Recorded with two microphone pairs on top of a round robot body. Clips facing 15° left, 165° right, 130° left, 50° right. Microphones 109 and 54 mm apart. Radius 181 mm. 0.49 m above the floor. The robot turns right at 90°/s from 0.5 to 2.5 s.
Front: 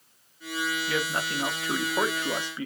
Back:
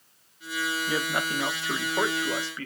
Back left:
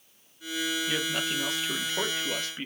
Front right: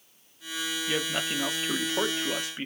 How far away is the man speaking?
About 1.2 m.